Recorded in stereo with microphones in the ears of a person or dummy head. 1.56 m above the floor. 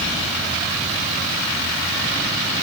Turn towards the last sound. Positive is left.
No sound to turn to.